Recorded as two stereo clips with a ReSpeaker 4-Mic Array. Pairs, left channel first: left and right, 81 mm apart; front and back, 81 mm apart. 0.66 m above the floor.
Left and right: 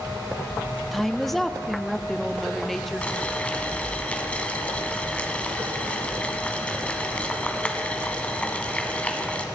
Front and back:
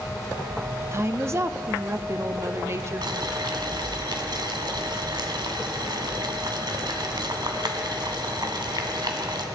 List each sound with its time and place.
0.9 s a woman speaking: 175° left, 0.6 m
3.0 s boiling: 165° left, 1.5 m